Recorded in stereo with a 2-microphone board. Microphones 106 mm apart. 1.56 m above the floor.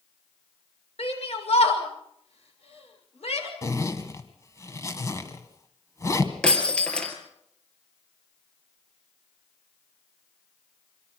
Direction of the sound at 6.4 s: 10° left (ahead or behind).